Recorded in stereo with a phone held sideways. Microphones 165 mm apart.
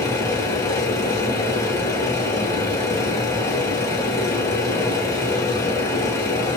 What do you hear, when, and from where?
0.0 s a machine running: 15° left (ahead or behind), 1.8 m